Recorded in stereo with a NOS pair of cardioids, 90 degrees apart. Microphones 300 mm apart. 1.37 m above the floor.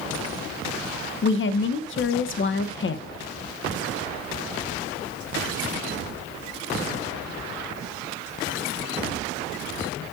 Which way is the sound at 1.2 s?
45° left.